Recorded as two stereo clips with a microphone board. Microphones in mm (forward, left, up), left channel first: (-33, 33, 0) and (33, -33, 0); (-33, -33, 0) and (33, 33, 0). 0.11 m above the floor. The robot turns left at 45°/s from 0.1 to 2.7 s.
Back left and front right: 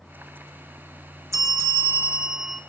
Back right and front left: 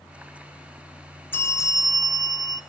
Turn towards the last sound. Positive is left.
turn(degrees=-140)